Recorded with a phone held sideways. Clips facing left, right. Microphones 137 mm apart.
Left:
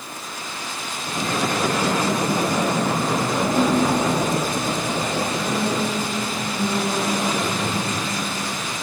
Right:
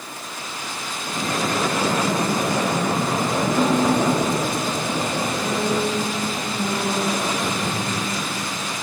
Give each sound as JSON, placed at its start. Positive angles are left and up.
{"t": 3.4, "sound": "a piano", "side_deg": 35, "distance_m": 4.0}